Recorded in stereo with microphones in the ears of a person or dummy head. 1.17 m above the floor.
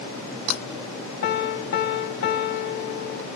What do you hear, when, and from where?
1.2 s a piano: 50° left (ahead or behind), 0.6 m